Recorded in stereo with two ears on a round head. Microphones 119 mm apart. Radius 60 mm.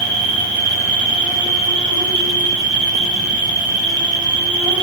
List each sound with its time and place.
0.0 s an insect: 10° left (ahead or behind), 2.5 m